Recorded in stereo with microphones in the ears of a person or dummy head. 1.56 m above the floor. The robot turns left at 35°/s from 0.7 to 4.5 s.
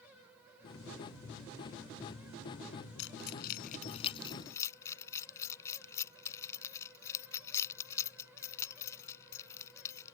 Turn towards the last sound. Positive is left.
turn(degrees=15)  # may be behind; listen again after turning